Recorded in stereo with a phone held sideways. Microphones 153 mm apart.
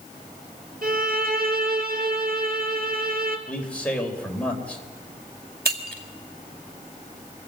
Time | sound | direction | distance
0.8 | a violin | 60° right (ahead or behind) | 3 m
3.5 | a man speaking | 10° left (ahead or behind) | 4 m
5.7 | breaking glass | 80° right | 2.5 m